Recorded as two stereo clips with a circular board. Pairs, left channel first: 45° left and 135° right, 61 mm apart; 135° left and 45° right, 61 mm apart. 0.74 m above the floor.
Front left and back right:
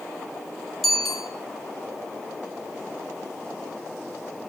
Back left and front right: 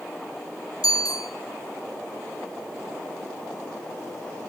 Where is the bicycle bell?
135° left, 7 m.